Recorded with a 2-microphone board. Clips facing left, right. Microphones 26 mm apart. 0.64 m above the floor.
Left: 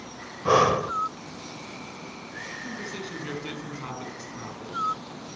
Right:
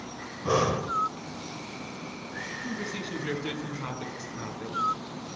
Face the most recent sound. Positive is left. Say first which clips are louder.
# right 1 dB
turn(degrees=-5)  # may be behind; listen again after turning